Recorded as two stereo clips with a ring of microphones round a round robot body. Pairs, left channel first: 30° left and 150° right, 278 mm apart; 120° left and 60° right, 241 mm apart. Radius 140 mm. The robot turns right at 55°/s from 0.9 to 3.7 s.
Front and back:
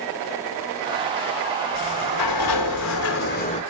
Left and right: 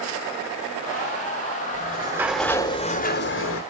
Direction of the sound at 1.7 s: 5° right.